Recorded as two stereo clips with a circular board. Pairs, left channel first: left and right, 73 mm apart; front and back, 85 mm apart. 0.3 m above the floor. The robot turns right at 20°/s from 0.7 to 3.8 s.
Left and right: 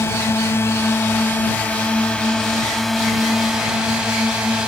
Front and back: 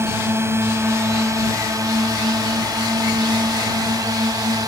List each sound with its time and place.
0.0 s a drone: 130° left; by 4.7 s 165° right